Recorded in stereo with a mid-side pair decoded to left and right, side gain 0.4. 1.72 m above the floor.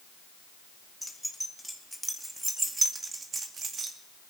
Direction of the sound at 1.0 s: 5° left.